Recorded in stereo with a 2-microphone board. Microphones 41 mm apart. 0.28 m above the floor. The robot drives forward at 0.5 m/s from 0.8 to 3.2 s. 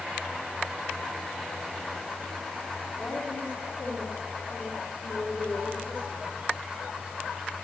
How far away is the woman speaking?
About 3.5 m.